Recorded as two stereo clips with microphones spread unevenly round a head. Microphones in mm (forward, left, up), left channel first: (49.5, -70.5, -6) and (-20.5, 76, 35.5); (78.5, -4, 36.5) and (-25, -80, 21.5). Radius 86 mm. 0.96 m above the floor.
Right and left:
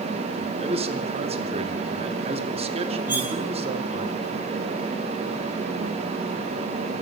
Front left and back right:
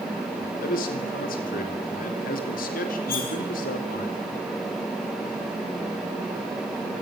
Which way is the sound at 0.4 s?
55° left.